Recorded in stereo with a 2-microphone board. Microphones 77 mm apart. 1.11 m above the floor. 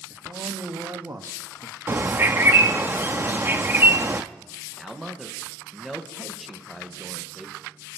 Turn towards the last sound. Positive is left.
turn(degrees=0)  # may be behind; listen again after turning